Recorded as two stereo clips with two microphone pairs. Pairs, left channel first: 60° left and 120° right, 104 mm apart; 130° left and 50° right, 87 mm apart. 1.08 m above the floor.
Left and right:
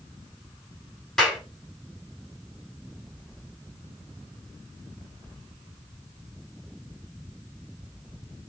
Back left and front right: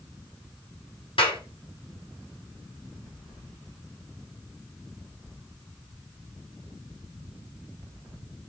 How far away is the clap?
About 8 m.